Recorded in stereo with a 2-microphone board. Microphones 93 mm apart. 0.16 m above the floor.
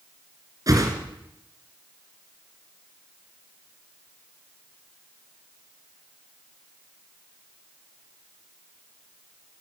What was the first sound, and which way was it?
A whoosh, 40° right (ahead or behind).